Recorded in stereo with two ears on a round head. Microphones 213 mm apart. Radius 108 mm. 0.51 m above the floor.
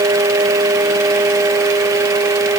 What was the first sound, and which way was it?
Only background noise.